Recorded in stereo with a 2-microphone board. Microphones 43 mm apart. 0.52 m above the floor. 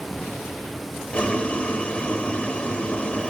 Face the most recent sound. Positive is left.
turn(degrees=25)  # may be behind; listen again after turning